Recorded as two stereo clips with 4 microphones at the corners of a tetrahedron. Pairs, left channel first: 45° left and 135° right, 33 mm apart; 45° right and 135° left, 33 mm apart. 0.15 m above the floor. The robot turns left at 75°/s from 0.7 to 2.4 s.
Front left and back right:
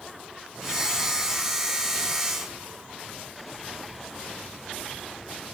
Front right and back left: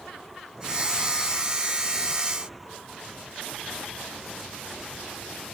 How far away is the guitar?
No guitar in this recording.